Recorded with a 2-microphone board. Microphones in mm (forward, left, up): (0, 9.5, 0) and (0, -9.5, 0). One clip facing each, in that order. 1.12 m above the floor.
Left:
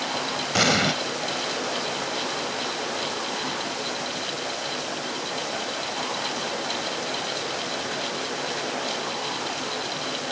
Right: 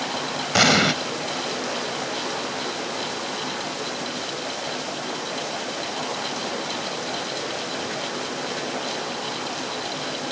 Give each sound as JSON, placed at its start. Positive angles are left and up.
{"t": 0.5, "sound": "an explosion", "side_deg": -15}